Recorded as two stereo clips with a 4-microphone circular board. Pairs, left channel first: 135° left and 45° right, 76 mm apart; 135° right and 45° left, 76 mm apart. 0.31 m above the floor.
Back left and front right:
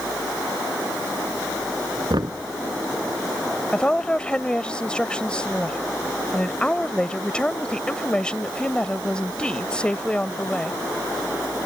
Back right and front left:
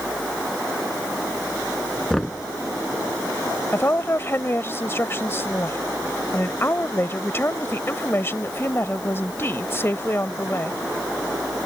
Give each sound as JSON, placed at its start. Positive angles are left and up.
{"t": 2.1, "sound": "knocking", "azimuth_deg": -50}
{"t": 3.7, "sound": "a woman speaking", "azimuth_deg": -160}